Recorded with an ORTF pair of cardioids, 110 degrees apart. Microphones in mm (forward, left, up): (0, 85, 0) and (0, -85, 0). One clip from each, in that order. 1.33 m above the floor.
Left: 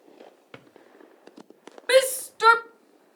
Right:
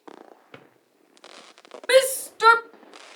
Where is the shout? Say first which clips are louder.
Right 1 dB; 5° right, 0.5 m.